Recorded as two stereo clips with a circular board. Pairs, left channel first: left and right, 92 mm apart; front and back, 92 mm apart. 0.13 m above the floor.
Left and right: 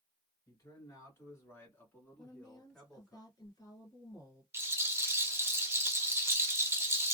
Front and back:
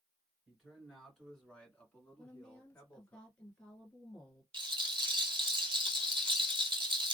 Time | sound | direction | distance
0.5 | a man speaking | 95° left | 1.6 m
2.2 | a woman speaking | 75° left | 1.4 m
4.5 | a rattle | 150° right | 0.7 m